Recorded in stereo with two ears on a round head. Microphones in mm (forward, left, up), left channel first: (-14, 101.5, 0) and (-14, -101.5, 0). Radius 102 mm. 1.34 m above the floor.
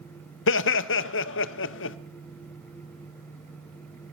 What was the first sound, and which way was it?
Laughter, 60° left (ahead or behind).